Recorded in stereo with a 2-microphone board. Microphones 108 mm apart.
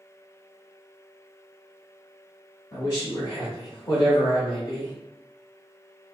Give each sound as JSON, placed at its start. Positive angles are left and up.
{"t": 2.7, "sound": "a man speaking", "side_deg": 35, "distance_m": 1.0}